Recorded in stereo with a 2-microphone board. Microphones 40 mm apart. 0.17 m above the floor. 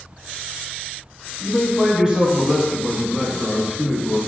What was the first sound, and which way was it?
A man speaking, 20° right (ahead or behind).